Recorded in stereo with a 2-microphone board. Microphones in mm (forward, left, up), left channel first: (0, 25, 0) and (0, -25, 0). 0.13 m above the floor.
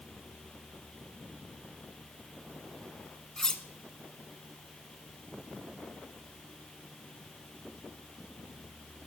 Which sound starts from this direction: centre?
Cutlery clinking, at 3.4 s.